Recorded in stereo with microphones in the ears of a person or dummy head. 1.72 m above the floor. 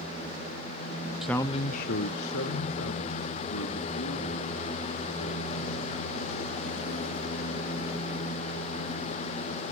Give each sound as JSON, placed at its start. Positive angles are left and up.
{"t": 1.2, "sound": "a man speaking", "side_deg": -5, "distance_m": 0.9}